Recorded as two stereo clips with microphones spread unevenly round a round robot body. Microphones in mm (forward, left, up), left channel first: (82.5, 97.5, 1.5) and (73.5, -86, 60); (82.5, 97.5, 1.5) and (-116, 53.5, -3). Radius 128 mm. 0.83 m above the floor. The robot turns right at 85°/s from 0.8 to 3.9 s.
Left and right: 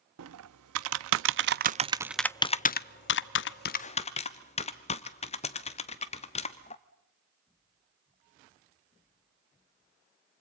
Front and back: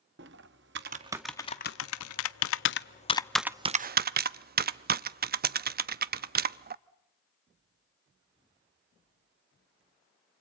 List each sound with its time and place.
0.2 s typing on a keyboard: 115° right, 0.6 m; by 6.8 s 145° left, 0.6 m